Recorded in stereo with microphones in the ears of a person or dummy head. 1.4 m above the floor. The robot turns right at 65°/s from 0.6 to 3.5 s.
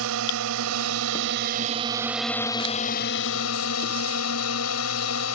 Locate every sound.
0.0 s a drone: 110° right; by 5.3 s 80° left